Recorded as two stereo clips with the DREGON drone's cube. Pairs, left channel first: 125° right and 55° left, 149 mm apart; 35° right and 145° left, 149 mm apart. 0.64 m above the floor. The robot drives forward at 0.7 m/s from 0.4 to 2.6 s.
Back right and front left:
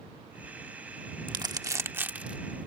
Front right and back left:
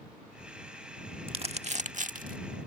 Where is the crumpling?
105° left; by 2.4 s 140° left.